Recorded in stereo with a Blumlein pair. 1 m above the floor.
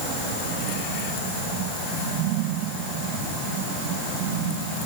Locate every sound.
Only background noise.